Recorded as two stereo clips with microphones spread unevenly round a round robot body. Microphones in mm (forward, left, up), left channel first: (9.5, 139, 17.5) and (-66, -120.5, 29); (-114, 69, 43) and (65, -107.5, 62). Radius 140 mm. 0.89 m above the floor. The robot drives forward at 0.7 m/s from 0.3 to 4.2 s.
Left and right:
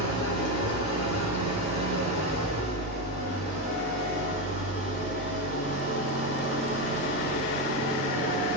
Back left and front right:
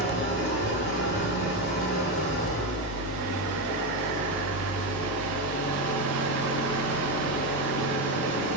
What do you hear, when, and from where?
0.0 s an engine running: 85° left, 7.5 m; by 8.6 s 105° left, 7.5 m